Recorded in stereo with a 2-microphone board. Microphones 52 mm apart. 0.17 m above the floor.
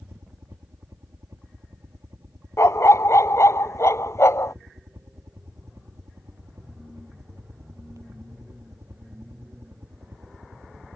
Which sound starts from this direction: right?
A helicopter, at 0.0 s.